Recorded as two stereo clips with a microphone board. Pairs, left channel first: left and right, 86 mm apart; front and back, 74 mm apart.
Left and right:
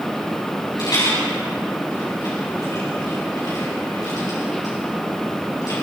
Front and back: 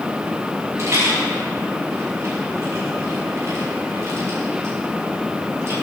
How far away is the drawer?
No drawer in this recording.